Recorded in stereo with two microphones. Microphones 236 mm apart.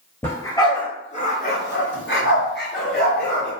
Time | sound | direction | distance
0.2 | a dog barking | 10° left (ahead or behind) | 1.1 m